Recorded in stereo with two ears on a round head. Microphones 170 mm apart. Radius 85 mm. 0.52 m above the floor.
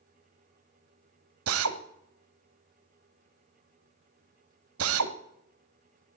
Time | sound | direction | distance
1.5 | a drill | 90° right | 1.1 m